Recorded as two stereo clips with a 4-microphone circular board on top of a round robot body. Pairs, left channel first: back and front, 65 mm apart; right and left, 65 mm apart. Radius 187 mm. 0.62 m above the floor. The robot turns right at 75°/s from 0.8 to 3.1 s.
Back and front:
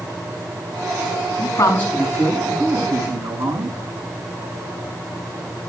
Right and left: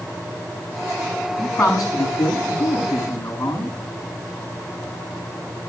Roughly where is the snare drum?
No snare drum in this recording.